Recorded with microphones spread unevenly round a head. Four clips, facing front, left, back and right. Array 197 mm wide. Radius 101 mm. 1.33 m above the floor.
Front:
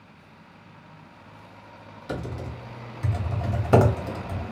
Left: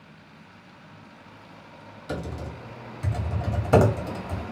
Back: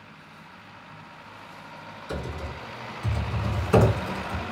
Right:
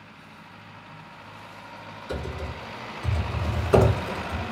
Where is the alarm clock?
I don't hear an alarm clock.